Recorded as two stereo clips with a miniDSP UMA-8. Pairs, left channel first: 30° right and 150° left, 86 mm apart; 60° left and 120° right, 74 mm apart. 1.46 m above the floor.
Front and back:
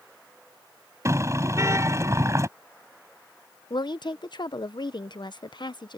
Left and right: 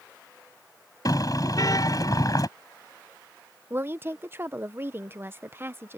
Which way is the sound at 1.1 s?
95° left.